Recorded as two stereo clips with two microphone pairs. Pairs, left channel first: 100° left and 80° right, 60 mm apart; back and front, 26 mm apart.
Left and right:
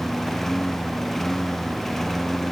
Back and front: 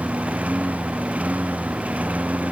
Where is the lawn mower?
15° left.